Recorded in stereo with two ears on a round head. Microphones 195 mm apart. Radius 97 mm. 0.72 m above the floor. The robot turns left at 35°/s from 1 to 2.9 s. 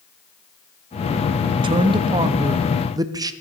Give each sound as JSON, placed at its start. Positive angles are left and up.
{"t": 1.5, "sound": "a man speaking", "side_deg": -25, "distance_m": 0.5}